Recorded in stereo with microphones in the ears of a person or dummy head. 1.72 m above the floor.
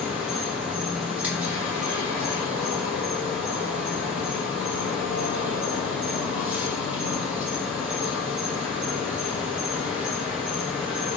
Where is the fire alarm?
I don't hear a fire alarm.